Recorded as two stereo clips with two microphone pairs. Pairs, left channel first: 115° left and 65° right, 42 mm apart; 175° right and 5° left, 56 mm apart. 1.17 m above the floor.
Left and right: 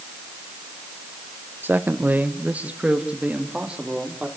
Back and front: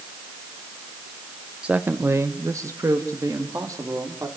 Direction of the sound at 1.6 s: 65° right.